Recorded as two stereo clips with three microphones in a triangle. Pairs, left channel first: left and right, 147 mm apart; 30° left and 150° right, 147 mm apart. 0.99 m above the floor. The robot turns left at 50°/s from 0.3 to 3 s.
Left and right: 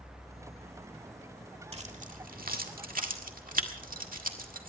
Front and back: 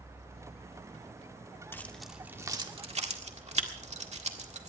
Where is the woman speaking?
I don't hear a woman speaking.